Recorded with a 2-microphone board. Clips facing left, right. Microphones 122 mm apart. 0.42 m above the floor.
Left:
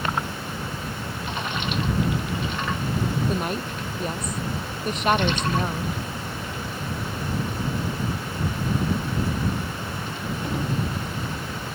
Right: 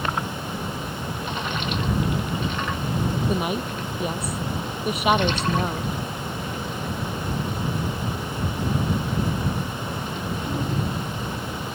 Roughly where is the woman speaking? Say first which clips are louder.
Right 2 dB; centre.